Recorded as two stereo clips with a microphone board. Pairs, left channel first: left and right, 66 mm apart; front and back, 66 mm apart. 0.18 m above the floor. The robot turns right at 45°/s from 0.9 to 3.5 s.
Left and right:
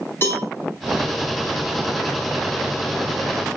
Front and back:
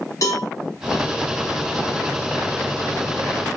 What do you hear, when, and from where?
0.2 s a cowbell: 35° left, 5.5 m